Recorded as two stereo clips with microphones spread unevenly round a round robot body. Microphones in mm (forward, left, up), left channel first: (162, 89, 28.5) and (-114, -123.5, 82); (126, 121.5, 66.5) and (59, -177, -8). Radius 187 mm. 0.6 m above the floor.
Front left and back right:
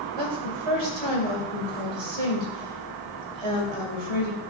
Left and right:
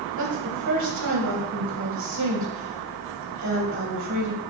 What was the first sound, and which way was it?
A woman speaking, 155° right.